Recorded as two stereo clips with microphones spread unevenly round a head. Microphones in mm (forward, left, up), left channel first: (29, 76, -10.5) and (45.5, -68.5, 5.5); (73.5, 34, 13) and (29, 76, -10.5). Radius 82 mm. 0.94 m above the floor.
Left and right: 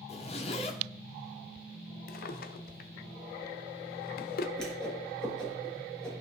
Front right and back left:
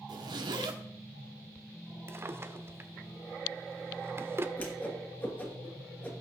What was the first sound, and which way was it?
A zipper, 155° left.